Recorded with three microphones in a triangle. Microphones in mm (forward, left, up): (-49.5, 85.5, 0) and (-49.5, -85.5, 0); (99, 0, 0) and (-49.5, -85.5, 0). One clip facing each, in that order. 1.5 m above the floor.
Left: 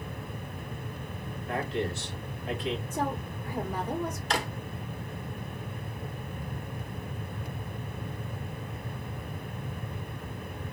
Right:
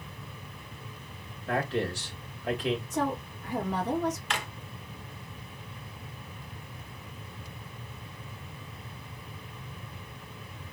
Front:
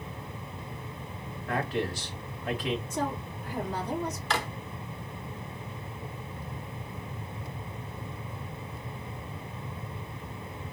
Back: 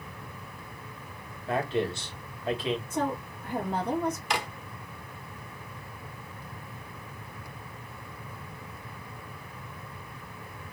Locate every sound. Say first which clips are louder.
1.5 s a man speaking: right 2 dB, back 2 dB; 85° right, 2 m
2.9 s a woman speaking: right 1 dB, back 2 dB; 110° right, 2.5 m
4.3 s a drawer: left 5 dB, even; 135° left, 0.9 m